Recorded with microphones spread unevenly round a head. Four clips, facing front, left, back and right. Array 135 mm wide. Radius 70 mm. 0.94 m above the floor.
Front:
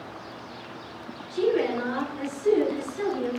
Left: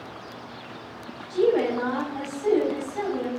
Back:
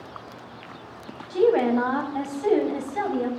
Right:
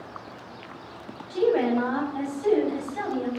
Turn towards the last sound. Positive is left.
turn(degrees=180)